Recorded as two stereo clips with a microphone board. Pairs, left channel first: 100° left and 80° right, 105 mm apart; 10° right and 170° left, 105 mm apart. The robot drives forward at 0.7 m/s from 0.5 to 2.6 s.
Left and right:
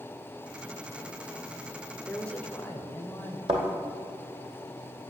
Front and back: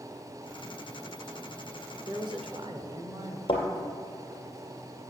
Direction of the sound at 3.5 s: 50° right.